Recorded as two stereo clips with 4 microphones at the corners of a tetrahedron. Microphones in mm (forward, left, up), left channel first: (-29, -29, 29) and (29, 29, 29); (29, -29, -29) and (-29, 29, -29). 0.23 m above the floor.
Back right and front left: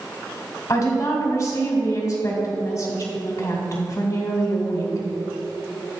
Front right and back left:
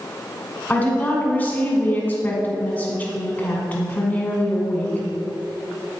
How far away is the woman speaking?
About 2 m.